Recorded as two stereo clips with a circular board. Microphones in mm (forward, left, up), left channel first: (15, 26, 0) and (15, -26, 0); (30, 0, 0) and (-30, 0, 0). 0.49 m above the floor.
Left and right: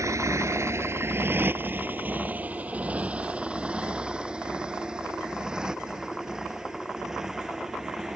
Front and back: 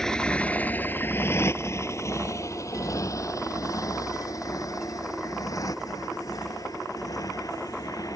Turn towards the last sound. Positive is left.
turn(degrees=-5)